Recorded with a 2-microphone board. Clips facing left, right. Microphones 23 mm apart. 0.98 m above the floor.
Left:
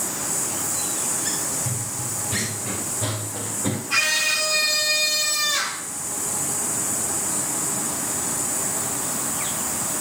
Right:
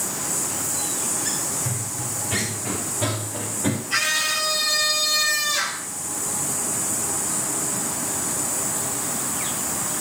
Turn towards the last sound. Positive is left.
turn(degrees=15)  # may be behind; listen again after turning